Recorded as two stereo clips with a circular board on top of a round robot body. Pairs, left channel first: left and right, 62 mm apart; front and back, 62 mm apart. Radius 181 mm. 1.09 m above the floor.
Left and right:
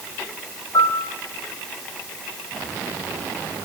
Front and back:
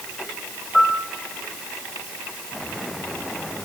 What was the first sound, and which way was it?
A piano, 85° left.